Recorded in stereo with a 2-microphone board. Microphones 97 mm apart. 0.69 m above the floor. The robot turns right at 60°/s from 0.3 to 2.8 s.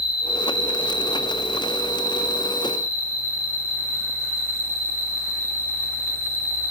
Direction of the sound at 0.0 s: 5° left.